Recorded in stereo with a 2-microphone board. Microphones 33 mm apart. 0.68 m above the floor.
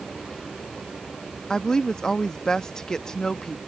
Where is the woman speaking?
20° left (ahead or behind).